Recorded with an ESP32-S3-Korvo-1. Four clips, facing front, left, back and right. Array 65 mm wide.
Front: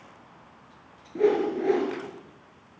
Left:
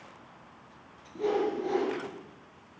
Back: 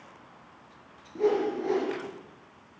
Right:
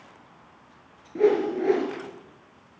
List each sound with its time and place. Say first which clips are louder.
1.1 s a whoosh: right 7 dB, front 3 dB; 65° right, 2.5 m